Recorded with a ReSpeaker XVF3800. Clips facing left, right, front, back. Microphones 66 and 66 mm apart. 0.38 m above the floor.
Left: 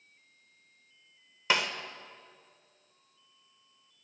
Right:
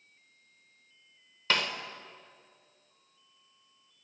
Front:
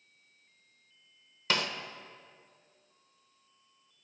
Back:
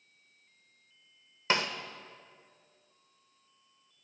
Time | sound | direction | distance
1.5 | a snare drum | 155° left | 1.0 m